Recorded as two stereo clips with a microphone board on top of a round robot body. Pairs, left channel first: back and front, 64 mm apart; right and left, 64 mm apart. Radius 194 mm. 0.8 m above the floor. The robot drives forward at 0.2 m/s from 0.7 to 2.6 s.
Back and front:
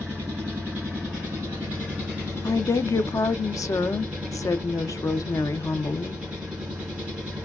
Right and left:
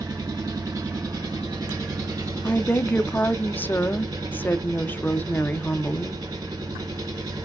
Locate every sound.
0.0 s an engine running: 65° left, 3 m; by 7.5 s 70° left, 3 m
2.4 s a woman speaking: 150° right, 0.6 m; by 6.2 s 155° right, 0.7 m